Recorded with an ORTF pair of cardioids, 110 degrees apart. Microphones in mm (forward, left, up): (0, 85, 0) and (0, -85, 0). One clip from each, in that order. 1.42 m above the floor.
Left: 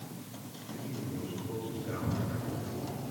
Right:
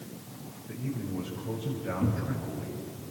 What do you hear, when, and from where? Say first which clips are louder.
0.7 s a man speaking: right 4 dB; 60° right, 5.5 m; by 2.9 s 50° right, 6.5 m
2.0 s a cupboard door: right 3 dB; 65° right, 3 m